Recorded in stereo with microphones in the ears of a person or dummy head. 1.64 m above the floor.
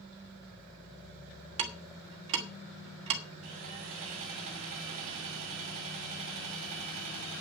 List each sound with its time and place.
1.6 s ticking: 30° right (ahead or behind), 1.2 m
3.4 s sawing: 45° right (ahead or behind), 1.8 m